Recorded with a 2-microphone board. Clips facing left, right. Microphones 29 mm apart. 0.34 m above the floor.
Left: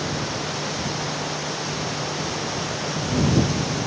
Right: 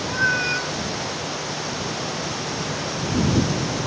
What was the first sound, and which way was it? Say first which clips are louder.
A cat meowing: right 6 dB; 85° right.